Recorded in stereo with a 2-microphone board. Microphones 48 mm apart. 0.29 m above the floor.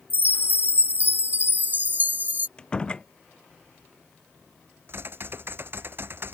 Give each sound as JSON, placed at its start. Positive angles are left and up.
{"t": 0.1, "sound": "a chime", "side_deg": -40}
{"t": 2.6, "sound": "a door slam", "side_deg": 20}
{"t": 4.9, "sound": "typing on a keyboard", "side_deg": -50}